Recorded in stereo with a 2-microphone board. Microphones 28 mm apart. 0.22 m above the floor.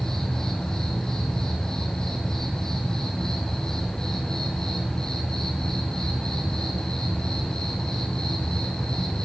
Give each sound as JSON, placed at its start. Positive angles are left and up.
{"t": 0.0, "sound": "an insect", "side_deg": 20, "distance_m": 2.5}